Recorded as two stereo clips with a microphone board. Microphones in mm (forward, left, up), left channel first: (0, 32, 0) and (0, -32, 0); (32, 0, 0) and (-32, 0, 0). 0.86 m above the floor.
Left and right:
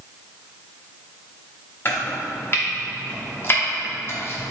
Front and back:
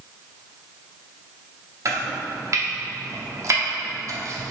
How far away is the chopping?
About 0.8 m.